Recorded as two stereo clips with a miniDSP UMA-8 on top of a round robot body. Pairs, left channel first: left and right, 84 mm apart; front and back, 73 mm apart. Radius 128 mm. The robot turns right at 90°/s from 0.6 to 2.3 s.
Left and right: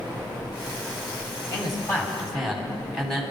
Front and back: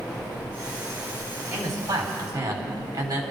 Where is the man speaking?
110° left, 4 m; by 3.2 s 175° right, 4 m.